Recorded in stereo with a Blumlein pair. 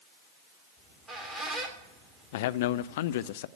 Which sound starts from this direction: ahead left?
A man speaking, at 2.3 s.